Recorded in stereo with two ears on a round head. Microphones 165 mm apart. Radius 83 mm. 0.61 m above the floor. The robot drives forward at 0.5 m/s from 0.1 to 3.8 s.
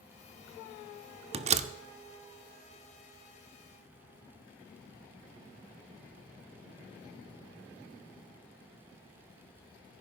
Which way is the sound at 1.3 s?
35° right (ahead or behind).